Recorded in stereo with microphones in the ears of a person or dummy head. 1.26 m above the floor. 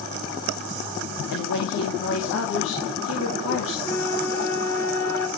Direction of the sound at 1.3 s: 75° left (ahead or behind).